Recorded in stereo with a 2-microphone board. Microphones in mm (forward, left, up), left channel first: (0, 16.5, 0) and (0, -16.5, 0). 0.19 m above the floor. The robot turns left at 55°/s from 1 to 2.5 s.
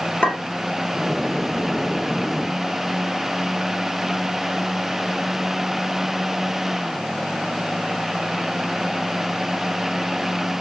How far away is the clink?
About 1.8 m.